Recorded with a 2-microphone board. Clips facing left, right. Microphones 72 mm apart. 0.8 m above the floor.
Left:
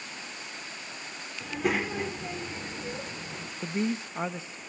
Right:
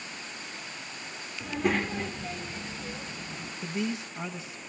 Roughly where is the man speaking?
Left.